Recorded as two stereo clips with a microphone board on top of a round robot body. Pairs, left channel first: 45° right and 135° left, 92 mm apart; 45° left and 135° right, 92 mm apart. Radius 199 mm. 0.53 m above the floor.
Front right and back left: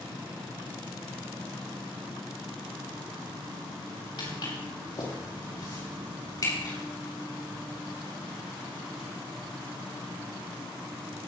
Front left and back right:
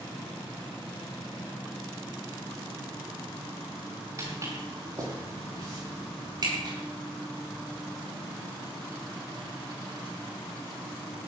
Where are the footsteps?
80° right, 5.5 m; by 6.7 s 95° right, 8 m.